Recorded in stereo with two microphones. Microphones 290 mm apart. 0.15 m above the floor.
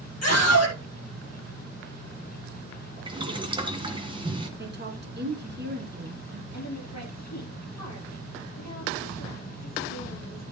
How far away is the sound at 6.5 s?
About 4 m.